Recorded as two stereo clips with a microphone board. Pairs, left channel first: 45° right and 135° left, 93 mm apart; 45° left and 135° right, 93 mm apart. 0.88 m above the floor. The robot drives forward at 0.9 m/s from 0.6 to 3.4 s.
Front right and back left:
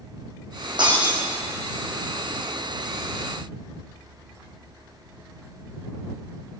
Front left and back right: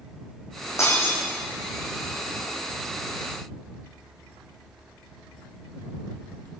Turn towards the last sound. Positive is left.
turn(degrees=125)